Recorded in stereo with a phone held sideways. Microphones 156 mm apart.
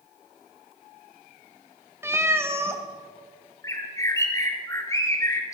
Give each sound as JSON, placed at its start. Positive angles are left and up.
{"t": 2.0, "sound": "a cat meowing", "side_deg": -15, "distance_m": 0.9}
{"t": 3.6, "sound": "a bird", "side_deg": 20, "distance_m": 1.4}